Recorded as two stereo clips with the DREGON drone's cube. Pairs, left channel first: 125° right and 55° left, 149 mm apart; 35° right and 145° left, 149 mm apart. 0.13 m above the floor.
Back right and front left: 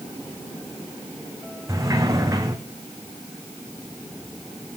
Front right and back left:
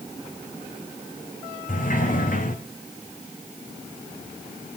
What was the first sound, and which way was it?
A sliding door, 15° right.